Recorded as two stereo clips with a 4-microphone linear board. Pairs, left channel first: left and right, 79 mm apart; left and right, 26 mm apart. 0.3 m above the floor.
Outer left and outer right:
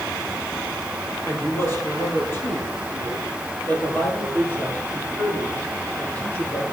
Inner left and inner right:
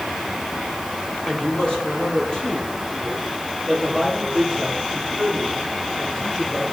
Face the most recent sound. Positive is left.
turn(degrees=20)  # may be behind; listen again after turning